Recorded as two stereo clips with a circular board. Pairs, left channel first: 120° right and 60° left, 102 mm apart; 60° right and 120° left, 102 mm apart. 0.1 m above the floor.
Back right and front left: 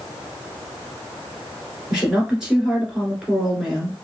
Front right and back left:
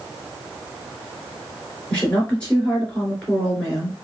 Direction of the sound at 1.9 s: 5° right.